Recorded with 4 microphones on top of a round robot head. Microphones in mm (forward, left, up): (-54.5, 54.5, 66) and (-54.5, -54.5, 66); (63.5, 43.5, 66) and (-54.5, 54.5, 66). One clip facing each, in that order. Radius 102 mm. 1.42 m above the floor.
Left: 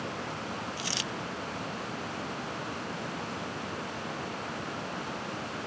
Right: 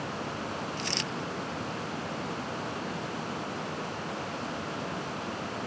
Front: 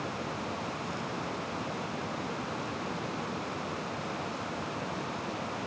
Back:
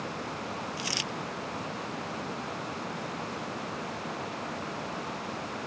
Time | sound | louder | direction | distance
0.8 | a dropped coin | right 2 dB, even | 175° left | ?